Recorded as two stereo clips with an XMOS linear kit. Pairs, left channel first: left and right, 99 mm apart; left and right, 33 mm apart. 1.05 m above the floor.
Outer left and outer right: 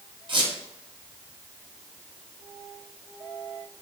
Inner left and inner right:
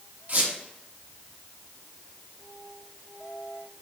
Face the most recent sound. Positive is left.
turn(degrees=-50)  # may be behind; listen again after turning